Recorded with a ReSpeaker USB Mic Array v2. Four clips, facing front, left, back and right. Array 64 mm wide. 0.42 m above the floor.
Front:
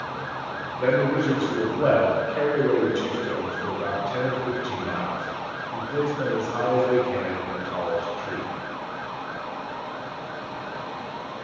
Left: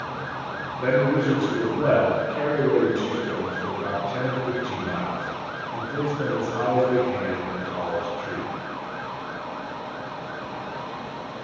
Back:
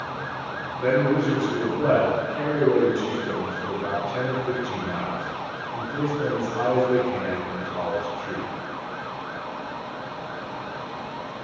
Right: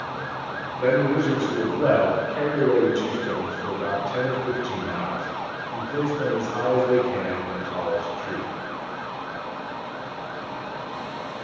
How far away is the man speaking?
About 2 m.